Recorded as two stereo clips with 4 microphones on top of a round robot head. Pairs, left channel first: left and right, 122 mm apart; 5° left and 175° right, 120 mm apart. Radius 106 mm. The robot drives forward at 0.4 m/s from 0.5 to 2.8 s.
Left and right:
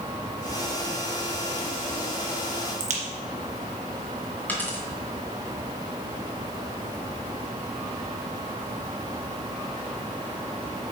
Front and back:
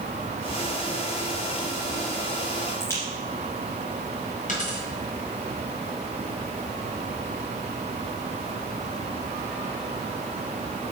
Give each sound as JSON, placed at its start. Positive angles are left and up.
{"t": 2.8, "sound": "a crack", "azimuth_deg": -70, "distance_m": 2.0}
{"t": 4.5, "sound": "a dropped coin", "azimuth_deg": 15, "distance_m": 2.5}